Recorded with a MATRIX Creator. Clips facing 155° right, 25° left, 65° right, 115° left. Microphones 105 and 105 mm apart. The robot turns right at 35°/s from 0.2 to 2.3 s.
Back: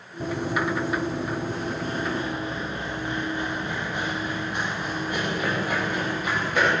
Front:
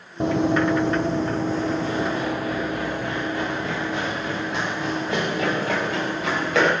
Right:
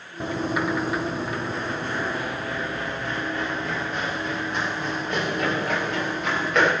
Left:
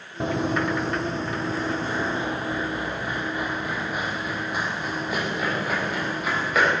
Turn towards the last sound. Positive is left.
turn(degrees=25)